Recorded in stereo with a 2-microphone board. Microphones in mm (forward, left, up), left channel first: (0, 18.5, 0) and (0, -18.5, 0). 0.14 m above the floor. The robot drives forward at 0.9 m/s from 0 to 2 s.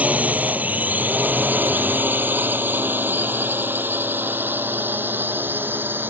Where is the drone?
45° right (ahead or behind); by 6.1 s 70° right (ahead or behind).